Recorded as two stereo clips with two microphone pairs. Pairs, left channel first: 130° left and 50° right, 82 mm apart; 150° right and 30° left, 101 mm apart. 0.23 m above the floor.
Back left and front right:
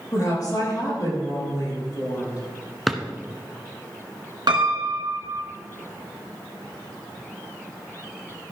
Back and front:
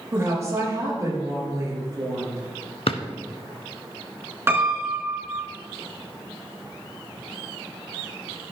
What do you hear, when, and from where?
0.1 s a woman speaking: 90° left, 5.5 m
2.9 s a drawer: 140° right, 0.9 m
4.5 s a piano: 35° right, 2.0 m